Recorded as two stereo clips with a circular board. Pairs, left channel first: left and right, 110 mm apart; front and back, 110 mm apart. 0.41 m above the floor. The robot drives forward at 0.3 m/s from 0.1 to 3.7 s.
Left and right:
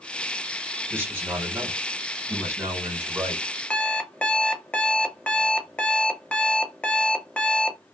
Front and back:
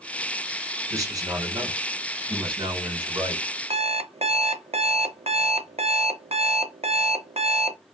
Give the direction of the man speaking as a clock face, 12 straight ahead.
5 o'clock.